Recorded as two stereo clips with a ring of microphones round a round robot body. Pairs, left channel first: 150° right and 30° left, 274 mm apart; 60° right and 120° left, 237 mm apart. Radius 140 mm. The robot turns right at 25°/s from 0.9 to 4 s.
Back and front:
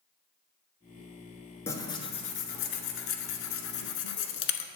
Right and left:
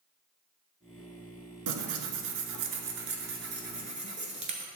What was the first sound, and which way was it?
Tearing paper, 130° left.